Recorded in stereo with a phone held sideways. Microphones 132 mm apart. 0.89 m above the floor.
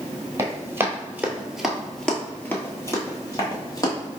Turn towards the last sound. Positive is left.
turn(degrees=30)  # may be behind; listen again after turning